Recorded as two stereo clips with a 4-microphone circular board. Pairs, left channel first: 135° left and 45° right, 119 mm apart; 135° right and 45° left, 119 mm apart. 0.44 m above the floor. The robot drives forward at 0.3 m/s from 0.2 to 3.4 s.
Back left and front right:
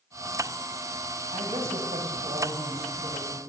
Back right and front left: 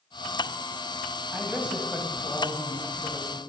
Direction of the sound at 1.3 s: 30° right.